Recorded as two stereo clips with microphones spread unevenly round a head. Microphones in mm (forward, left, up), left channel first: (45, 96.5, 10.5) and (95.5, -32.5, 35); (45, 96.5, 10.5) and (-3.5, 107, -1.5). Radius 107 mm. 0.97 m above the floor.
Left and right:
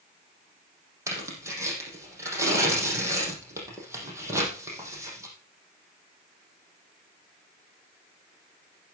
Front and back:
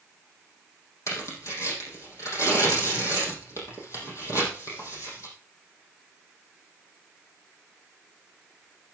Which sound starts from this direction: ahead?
Tearing paper, at 1.1 s.